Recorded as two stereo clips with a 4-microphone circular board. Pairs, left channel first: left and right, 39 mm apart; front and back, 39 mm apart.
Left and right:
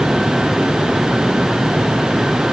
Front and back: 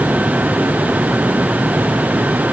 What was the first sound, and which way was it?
Only background noise.